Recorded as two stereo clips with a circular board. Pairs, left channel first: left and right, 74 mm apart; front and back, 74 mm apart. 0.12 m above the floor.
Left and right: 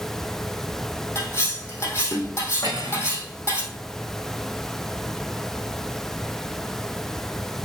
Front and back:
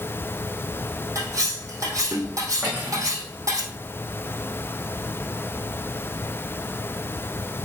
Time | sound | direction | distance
1.1 | cutlery clinking | 140° left | 3 m
2.6 | cutlery clinking | 115° left | 4 m